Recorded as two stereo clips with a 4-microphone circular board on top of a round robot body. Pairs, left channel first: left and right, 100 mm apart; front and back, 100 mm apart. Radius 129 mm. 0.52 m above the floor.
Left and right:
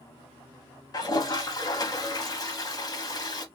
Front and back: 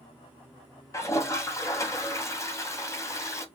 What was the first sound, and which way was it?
A toilet flushing, 50° left.